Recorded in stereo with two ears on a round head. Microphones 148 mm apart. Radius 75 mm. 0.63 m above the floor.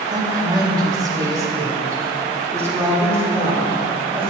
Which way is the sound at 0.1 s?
25° right (ahead or behind).